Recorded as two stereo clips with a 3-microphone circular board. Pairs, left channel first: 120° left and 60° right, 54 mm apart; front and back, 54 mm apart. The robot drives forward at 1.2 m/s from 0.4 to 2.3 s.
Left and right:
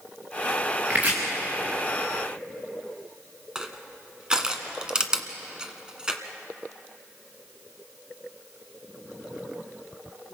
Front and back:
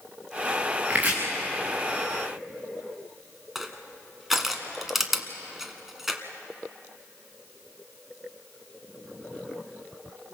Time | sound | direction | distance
0.9 | chopping | 120° right | 5 m
3.5 | crushing | 100° right | 1.5 m